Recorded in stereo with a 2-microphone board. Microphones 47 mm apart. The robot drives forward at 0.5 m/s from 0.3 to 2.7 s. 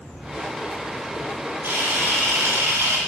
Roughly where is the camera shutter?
Right.